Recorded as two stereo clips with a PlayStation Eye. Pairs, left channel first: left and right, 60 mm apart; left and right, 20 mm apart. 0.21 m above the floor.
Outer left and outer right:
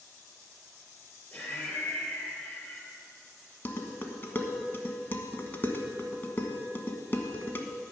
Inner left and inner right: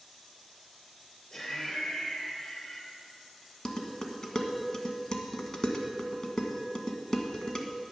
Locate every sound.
1.3 s laughter: 35° left (ahead or behind), 3.5 m
3.6 s dishes clattering: 35° left (ahead or behind), 1.1 m